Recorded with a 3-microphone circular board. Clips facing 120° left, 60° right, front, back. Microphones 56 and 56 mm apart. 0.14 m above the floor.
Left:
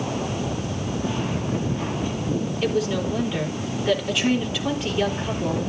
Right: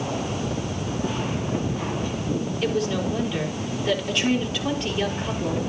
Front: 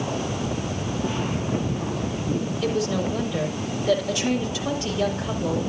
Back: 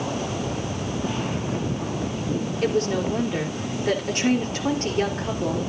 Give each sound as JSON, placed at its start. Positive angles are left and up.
{"t": 2.6, "sound": "a woman speaking", "azimuth_deg": -155, "distance_m": 3.5}